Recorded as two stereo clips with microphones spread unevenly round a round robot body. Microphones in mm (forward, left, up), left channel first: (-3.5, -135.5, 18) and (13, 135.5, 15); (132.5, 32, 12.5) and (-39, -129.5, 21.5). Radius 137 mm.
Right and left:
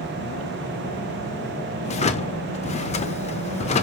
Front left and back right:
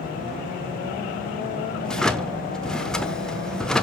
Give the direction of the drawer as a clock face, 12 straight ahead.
1 o'clock.